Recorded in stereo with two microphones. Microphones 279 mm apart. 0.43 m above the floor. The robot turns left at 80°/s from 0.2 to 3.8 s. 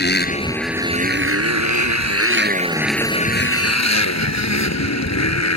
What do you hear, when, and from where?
0.0 s a motorcycle: 35° left; by 5.6 s 110° left